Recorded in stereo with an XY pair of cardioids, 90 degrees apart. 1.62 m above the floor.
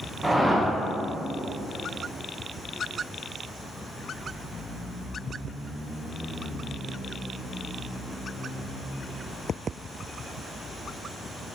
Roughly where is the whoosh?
Ahead.